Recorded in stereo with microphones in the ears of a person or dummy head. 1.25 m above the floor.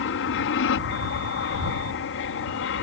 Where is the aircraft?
60° left (ahead or behind).